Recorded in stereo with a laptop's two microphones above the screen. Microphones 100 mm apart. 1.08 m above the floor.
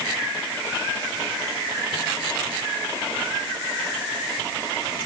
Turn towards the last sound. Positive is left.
No sound to turn to.